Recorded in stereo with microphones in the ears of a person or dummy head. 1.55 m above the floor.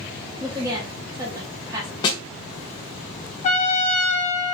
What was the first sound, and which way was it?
A woman speaking, 20° right (ahead or behind).